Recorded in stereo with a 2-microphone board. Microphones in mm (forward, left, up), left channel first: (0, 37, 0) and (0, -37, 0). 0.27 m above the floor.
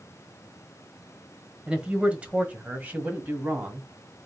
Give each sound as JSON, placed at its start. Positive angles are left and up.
{"t": 1.7, "sound": "a man speaking", "side_deg": -10, "distance_m": 1.3}